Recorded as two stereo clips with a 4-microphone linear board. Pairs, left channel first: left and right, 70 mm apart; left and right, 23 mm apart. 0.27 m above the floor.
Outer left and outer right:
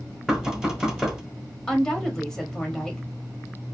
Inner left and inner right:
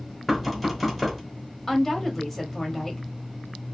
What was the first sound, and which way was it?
Knocking, 10° right (ahead or behind).